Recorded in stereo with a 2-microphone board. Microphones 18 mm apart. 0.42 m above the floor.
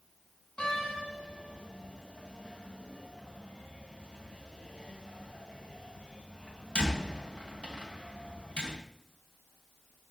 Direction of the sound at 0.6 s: 75° left (ahead or behind).